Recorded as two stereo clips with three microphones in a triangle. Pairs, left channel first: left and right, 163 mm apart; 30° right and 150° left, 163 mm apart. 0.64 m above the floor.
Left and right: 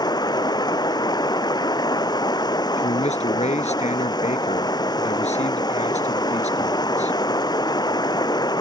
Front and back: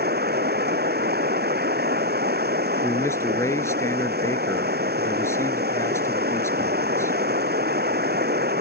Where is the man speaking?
45° left.